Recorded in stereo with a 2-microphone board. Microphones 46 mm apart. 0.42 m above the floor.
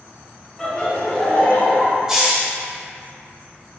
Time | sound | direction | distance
0.6 | laughter | 15° left (ahead or behind) | 1.1 m
2.1 | a hiss | 15° right (ahead or behind) | 0.8 m